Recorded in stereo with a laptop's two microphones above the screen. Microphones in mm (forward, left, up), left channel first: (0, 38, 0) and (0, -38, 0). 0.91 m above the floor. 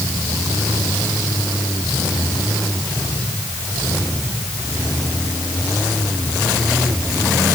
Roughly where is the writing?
I don't hear writing.